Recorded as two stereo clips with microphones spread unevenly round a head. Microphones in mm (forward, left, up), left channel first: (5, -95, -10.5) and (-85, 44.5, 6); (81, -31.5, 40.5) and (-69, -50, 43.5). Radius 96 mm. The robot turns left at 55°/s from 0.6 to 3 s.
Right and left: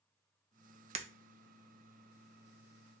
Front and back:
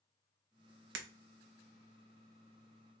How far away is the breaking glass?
About 0.6 m.